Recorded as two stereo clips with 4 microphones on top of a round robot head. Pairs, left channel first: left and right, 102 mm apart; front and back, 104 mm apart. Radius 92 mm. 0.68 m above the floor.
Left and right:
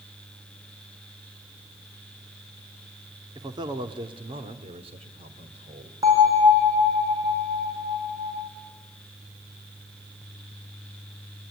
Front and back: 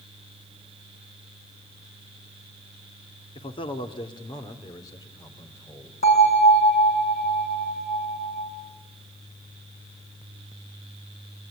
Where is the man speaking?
35° right, 1.6 m; by 5.9 s 70° right, 3 m.